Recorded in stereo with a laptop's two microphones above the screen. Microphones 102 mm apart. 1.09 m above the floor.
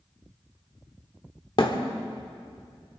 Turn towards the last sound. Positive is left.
turn(degrees=55)  # may be behind; listen again after turning